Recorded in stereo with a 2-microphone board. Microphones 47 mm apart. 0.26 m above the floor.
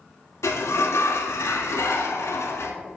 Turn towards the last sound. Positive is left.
turn(degrees=75)  # may be behind; listen again after turning